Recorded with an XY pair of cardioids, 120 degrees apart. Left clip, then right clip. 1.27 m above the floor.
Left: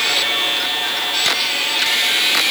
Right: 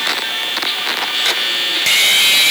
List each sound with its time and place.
Only background noise.